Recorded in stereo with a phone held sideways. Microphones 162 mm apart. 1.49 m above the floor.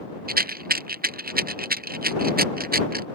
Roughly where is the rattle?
Right.